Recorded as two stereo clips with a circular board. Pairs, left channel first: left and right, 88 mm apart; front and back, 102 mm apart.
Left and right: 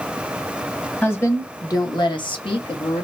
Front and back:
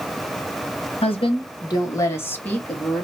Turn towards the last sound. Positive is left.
turn(degrees=85)